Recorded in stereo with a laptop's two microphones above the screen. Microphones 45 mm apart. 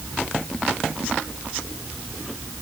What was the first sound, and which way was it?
Only background noise.